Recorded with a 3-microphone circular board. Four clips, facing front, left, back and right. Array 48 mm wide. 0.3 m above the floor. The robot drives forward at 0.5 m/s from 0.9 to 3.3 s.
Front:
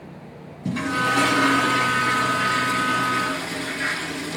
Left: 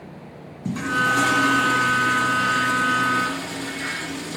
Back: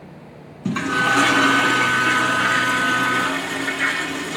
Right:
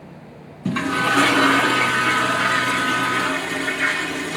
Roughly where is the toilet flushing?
Behind right.